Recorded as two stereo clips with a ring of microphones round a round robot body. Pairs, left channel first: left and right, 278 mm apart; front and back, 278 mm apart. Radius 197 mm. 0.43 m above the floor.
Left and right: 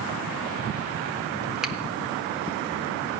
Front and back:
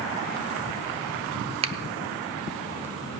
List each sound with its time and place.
1.6 s a finger snap: 175° right, 0.6 m